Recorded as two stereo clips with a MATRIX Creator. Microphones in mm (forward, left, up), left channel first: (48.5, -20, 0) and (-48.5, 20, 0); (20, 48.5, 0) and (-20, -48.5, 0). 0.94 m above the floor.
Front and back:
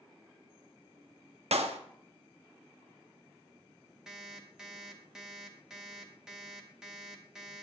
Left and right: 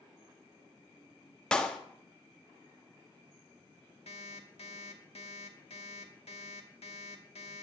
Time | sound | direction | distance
1.5 | a clap | 150° left | 1.0 m
4.1 | an alarm clock | 75° left | 1.3 m